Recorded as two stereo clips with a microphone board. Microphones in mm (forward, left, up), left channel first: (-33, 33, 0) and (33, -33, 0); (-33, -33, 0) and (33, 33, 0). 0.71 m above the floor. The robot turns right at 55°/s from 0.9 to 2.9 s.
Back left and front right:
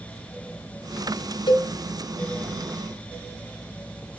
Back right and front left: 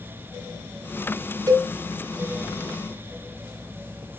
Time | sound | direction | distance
1.5 | a cowbell | 100° left | 0.6 m